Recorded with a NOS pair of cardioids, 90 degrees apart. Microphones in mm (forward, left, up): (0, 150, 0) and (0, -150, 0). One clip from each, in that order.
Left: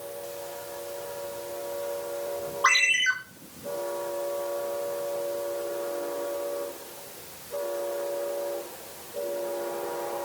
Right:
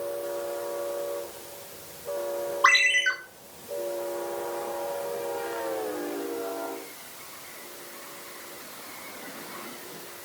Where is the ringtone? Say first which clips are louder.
Right 1 dB; 20° right, 3.5 m.